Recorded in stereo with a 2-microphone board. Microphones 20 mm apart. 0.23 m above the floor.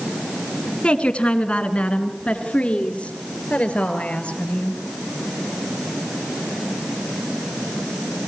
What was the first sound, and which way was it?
A woman speaking, 60° left (ahead or behind).